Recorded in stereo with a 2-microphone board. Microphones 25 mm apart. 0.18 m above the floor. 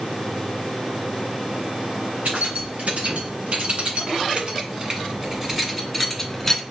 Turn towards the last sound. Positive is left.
turn(degrees=15)  # may be behind; listen again after turning